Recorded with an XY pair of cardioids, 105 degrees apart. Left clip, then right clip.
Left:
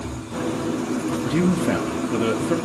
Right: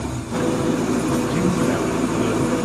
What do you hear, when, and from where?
0.0 s an engine running: 45° right, 1.0 m
1.2 s a man speaking: 25° left, 1.6 m